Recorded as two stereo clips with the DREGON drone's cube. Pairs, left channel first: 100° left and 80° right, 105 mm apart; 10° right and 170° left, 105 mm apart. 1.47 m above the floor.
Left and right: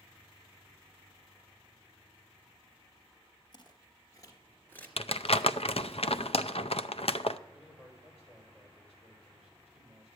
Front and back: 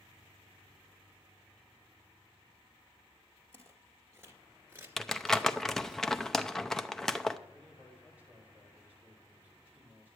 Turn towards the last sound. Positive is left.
turn(degrees=95)